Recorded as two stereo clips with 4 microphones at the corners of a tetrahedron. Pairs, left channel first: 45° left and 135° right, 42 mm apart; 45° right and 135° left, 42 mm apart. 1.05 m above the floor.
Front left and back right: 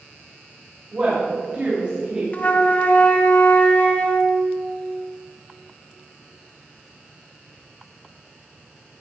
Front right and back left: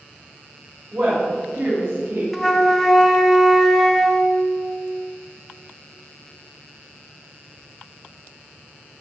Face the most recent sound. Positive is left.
turn(degrees=40)